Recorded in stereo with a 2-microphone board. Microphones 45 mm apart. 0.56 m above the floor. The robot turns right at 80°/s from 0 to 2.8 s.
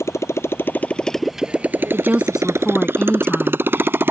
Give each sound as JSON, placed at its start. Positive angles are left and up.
{"t": 0.0, "sound": "a motorcycle", "side_deg": 75}
{"t": 1.9, "sound": "a woman speaking", "azimuth_deg": -50}